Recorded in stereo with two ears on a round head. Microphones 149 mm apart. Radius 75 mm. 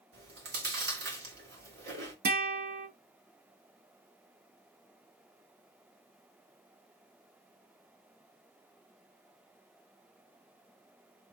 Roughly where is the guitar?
Right.